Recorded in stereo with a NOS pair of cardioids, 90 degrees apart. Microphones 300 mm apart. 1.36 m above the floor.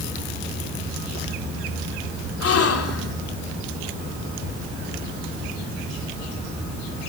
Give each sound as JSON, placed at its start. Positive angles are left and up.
{"t": 2.4, "sound": "a gasp", "azimuth_deg": 50, "distance_m": 3.5}